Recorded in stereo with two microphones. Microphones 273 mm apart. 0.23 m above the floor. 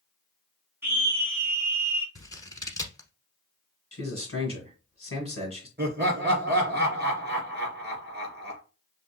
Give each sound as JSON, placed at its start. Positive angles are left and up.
{"t": 0.8, "sound": "a scream", "side_deg": -10, "distance_m": 2.0}
{"t": 2.1, "sound": "scissors", "side_deg": 10, "distance_m": 1.0}
{"t": 3.9, "sound": "a man speaking", "side_deg": 50, "distance_m": 1.9}
{"t": 5.8, "sound": "laughter", "side_deg": -35, "distance_m": 3.0}